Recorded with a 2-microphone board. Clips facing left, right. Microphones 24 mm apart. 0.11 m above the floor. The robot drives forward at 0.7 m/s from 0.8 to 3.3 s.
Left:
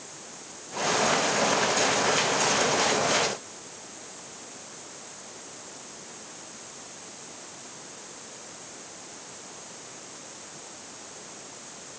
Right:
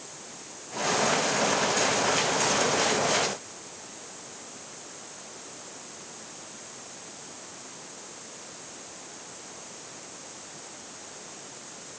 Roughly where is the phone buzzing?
No phone buzzing in this recording.